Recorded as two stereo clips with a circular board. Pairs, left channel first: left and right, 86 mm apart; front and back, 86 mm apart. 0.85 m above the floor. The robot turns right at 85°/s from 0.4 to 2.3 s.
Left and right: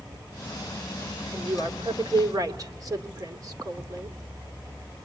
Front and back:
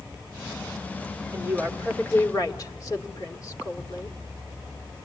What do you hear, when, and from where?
1.3 s a woman speaking: 125° right, 2.5 m; by 4.2 s 45° right, 2.5 m